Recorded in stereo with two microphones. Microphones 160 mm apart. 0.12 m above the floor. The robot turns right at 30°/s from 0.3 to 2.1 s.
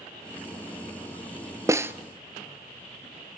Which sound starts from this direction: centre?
A snare drum, at 1.7 s.